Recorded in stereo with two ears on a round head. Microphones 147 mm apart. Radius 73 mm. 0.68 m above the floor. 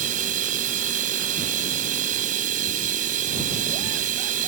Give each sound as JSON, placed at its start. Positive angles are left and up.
{"t": 0.0, "sound": "running water", "side_deg": -50}